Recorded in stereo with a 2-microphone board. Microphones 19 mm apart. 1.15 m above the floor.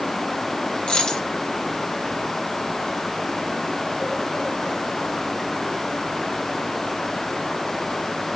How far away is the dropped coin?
About 1.8 m.